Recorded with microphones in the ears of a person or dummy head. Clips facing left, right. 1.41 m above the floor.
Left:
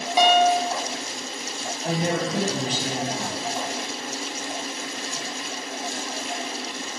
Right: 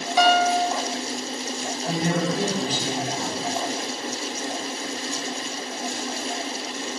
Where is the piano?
15° left (ahead or behind), 0.6 m.